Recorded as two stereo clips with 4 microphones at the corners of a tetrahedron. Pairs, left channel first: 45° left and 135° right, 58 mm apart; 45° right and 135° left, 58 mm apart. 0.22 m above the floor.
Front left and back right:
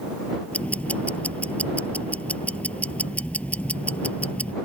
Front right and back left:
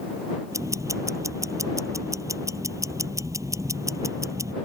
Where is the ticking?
110° left.